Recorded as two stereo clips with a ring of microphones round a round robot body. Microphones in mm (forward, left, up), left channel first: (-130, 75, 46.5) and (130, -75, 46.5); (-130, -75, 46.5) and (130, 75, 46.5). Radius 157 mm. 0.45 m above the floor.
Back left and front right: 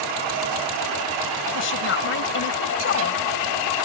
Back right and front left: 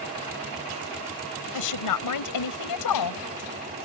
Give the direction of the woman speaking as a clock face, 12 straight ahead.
5 o'clock.